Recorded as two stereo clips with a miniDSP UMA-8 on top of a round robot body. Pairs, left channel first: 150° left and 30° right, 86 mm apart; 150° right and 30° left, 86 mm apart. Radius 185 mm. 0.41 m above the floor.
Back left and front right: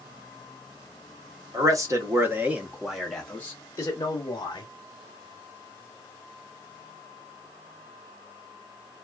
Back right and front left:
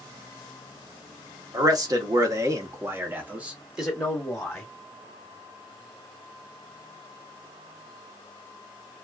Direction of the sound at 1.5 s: Straight ahead.